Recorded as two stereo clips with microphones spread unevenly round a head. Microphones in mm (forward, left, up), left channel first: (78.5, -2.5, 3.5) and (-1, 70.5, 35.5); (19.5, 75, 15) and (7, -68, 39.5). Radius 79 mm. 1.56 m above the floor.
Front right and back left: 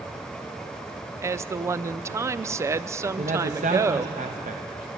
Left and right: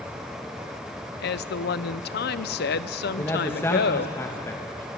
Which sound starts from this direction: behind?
A man speaking, at 3.2 s.